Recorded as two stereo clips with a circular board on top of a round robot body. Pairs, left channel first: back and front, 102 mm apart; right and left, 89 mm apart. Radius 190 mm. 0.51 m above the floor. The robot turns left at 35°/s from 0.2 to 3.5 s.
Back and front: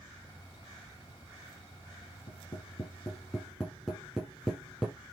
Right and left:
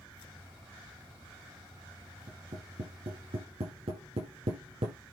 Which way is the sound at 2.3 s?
135° left.